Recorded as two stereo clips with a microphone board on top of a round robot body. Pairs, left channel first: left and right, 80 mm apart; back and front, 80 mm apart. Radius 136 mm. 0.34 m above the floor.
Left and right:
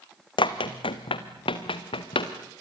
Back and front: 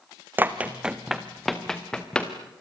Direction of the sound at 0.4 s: 65° left.